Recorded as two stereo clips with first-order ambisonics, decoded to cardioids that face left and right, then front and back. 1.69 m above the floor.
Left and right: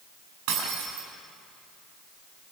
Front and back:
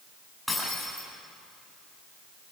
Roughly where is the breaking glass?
Right.